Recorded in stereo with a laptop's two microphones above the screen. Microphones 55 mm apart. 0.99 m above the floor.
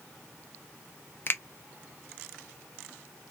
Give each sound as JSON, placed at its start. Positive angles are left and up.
{"t": 1.3, "sound": "a finger snap", "side_deg": 40, "distance_m": 0.5}